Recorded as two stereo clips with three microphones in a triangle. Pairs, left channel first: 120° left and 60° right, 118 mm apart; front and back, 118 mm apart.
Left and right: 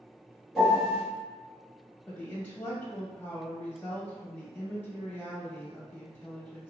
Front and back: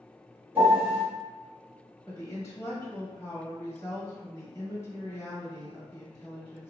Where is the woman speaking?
55° left, 1.1 m.